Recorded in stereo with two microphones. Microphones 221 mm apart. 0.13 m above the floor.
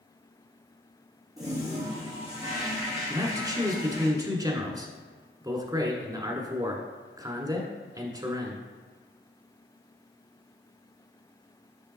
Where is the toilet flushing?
15° right (ahead or behind), 2.5 m.